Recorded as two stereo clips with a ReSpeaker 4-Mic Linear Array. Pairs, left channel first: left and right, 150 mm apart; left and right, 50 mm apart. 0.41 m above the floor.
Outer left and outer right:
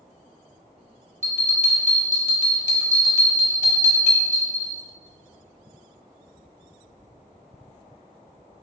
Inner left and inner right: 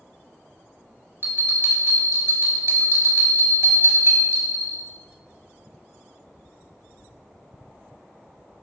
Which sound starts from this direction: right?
A bell, at 1.2 s.